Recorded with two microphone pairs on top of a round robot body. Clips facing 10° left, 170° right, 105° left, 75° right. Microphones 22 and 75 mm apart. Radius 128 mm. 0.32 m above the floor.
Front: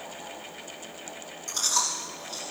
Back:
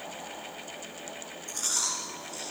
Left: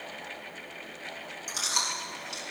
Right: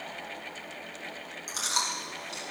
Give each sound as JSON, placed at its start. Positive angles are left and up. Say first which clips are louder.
{"t": 1.5, "sound": "chewing", "louder": "front 4 dB, right 1 dB", "azimuth_deg": -25, "distance_m": 6.5}